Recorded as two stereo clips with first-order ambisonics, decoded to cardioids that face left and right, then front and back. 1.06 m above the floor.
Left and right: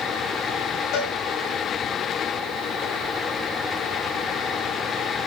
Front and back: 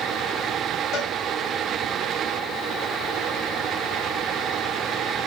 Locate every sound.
0.9 s a cowbell: 50° left, 5.5 m